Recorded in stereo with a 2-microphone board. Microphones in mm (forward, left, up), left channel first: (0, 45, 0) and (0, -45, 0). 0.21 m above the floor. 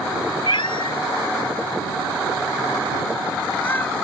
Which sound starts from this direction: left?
A cat meowing, at 0.5 s.